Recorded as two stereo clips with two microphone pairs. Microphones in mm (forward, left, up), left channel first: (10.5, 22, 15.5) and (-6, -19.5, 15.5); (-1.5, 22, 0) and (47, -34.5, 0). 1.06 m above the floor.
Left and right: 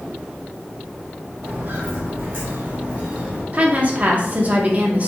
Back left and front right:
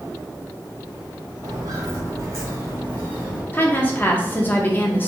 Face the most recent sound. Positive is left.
turn(degrees=-165)